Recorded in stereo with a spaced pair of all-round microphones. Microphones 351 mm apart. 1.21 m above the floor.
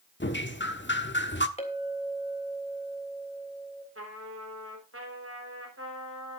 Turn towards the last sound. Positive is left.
turn(degrees=-40)  # may be behind; listen again after turning